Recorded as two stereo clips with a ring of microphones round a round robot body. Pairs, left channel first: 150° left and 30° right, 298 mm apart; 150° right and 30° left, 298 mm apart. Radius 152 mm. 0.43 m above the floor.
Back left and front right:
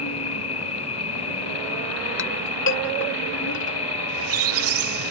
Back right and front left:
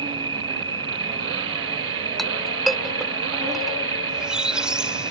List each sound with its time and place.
0.0 s an insect: 105° left
2.2 s a clink: 120° left
4.1 s a squeak: 55° right